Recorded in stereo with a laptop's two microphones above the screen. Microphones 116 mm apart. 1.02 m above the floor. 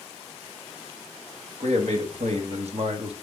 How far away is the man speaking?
About 1.6 m.